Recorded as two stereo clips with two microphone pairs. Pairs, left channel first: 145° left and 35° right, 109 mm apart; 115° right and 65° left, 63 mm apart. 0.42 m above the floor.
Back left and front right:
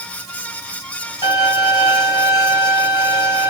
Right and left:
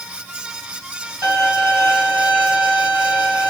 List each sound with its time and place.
1.2 s a violin: 100° left, 3 m